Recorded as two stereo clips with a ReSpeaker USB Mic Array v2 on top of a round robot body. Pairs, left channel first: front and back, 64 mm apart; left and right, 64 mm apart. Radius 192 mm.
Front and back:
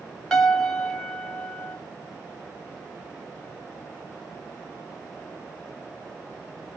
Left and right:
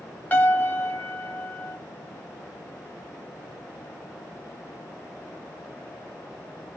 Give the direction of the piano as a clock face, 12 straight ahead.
10 o'clock.